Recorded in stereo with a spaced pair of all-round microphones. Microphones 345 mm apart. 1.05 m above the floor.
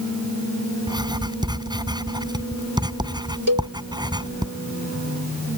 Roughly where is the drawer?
I don't hear a drawer.